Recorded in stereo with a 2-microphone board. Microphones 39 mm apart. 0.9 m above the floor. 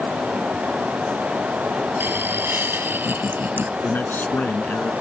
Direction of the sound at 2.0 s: 65° right (ahead or behind).